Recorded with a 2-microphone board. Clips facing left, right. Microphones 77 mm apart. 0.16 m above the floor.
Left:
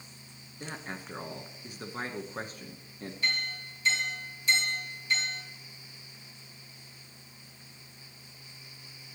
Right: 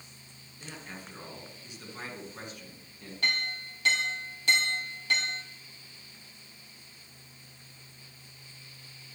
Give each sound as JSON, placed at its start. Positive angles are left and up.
{"t": 0.6, "sound": "a man speaking", "side_deg": 45, "distance_m": 1.6}
{"t": 3.2, "sound": "a clink", "side_deg": -65, "distance_m": 2.5}